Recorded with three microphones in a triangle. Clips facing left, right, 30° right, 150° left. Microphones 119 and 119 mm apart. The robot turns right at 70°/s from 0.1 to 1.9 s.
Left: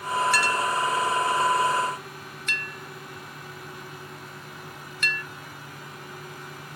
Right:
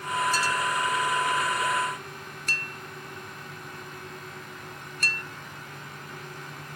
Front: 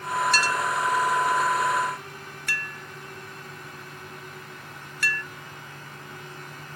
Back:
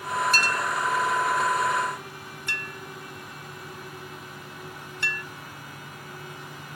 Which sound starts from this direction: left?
A clink, at 0.3 s.